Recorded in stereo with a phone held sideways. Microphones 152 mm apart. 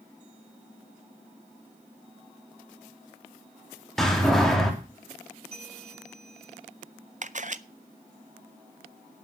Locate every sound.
4.0 s a door slam: centre (ahead or behind), 2.5 m
5.5 s a bell: 45° right (ahead or behind), 5.5 m
7.2 s a camera shutter: 55° right (ahead or behind), 0.6 m